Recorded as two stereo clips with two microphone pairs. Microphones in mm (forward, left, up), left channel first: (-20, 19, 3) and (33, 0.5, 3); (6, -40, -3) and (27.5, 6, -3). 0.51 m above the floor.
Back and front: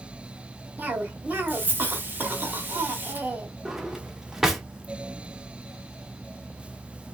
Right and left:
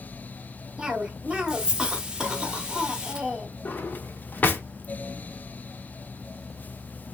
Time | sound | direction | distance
0.8 | a cough | straight ahead | 0.9 m
3.6 | a drawer | 95° right | 0.5 m